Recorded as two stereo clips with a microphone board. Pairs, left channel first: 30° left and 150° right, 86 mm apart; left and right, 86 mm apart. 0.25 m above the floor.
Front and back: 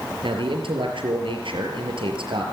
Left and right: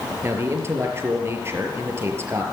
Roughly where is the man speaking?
Behind right.